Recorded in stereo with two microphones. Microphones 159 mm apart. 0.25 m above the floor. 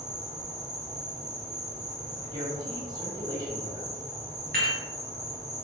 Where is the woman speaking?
25° right (ahead or behind), 1.3 m.